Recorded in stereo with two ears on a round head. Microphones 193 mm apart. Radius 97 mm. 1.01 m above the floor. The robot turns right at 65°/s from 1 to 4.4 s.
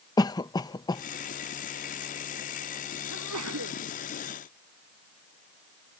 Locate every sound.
0.2 s a cough: 20° left (ahead or behind); by 1.0 s 15° left (ahead or behind)
3.1 s a sneeze: 100° right; by 3.8 s 55° right